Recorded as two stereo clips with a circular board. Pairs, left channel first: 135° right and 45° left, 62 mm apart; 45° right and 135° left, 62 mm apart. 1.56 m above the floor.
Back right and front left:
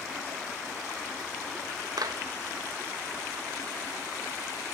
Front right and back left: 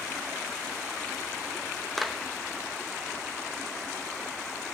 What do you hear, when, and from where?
2.0 s a clap: 45° left, 1.7 m